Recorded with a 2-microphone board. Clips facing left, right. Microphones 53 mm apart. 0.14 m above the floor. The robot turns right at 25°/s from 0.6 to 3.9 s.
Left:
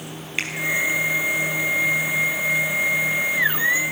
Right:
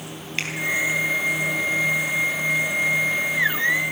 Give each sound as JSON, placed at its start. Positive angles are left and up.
{"t": 0.4, "sound": "a finger snap", "side_deg": 10, "distance_m": 3.5}